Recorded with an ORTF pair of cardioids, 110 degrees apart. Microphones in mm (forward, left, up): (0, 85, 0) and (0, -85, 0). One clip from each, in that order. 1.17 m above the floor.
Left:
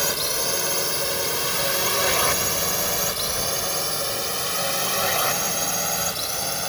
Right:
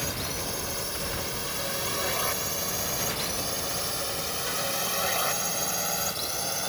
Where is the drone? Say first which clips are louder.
Left 8 dB; 60° left; by 6.7 s 25° left.